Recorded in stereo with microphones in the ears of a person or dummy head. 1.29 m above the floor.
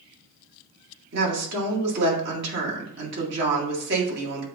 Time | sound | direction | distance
1.1 | a woman speaking | 65° right (ahead or behind) | 1.9 m